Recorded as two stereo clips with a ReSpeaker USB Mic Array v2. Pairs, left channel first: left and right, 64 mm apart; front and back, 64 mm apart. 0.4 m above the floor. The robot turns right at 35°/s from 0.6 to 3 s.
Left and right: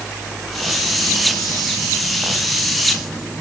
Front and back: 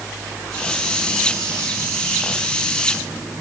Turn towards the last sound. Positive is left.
No sound to turn to.